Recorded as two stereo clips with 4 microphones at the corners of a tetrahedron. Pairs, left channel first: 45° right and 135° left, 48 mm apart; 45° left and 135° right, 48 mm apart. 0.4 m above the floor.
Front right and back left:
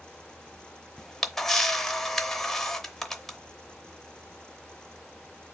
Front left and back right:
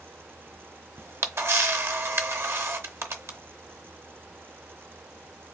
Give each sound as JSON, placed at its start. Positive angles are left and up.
{"t": 1.0, "sound": "a camera shutter", "azimuth_deg": -125, "distance_m": 0.7}